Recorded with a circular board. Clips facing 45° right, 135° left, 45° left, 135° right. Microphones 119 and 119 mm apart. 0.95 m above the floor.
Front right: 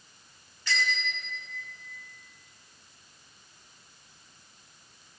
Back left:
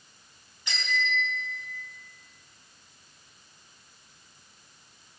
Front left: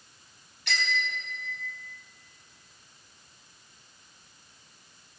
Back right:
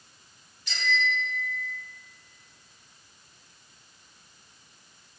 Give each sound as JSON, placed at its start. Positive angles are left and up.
{"t": 0.7, "sound": "a bicycle bell", "azimuth_deg": 65, "distance_m": 4.5}